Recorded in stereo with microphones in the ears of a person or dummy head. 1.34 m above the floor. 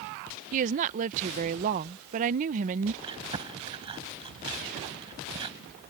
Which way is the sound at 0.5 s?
45° right (ahead or behind).